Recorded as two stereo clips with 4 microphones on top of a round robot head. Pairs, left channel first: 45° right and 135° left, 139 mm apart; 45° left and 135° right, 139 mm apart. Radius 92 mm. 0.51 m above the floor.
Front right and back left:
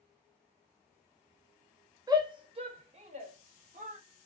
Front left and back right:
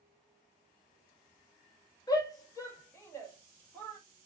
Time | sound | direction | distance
2.1 | a shout | 90° left | 0.8 m